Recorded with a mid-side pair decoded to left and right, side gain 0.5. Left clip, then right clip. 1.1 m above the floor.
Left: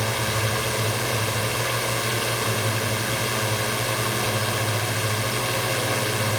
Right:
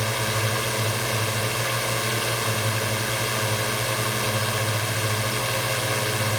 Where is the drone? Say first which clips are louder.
Even; straight ahead.